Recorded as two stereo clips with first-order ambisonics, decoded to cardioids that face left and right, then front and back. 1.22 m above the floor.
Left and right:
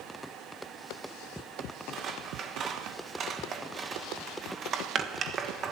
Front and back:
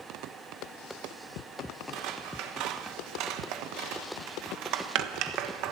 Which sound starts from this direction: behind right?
Scissors, at 1.9 s.